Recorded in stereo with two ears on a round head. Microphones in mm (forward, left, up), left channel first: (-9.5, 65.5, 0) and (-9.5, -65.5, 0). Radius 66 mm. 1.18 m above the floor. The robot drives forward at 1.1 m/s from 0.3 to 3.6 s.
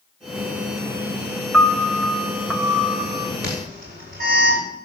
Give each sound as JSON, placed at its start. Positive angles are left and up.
{"t": 1.5, "sound": "a piano", "side_deg": 0, "distance_m": 0.7}
{"t": 3.4, "sound": "an alarm", "side_deg": -80, "distance_m": 7.0}